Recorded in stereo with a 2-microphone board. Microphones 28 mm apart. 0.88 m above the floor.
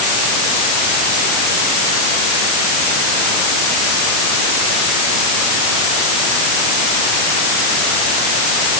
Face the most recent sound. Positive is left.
No sound to turn to.